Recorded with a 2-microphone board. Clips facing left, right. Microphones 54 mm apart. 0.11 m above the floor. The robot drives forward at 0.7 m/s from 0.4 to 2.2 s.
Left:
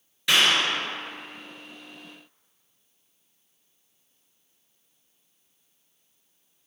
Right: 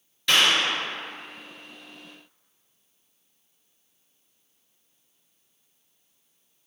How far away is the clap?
About 1.6 m.